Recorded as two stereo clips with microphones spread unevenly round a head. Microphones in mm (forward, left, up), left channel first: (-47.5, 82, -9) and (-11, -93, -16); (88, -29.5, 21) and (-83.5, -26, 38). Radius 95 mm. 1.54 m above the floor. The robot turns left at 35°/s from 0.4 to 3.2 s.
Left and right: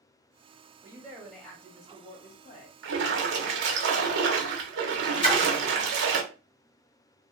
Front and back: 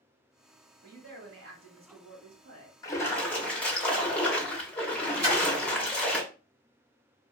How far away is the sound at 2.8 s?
About 0.8 m.